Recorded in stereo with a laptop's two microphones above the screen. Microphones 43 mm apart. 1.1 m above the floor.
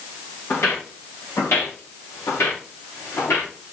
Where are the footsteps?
70° left (ahead or behind), 4.5 m; by 3.5 s 80° left, 6 m.